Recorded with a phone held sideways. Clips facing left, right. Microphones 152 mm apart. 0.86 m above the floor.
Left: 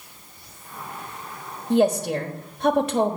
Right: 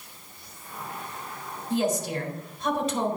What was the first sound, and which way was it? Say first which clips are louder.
A woman speaking: left 7 dB; 65° left (ahead or behind).